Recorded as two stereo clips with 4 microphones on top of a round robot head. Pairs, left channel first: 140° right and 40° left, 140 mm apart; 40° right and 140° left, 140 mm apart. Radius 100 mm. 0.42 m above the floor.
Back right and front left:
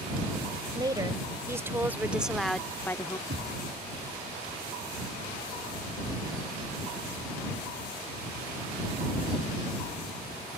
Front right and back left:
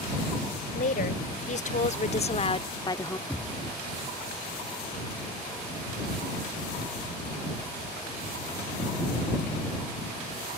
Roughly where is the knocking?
Ahead left.